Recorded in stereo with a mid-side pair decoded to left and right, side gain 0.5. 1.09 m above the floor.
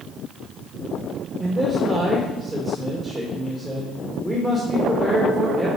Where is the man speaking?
30° right, 1.5 m.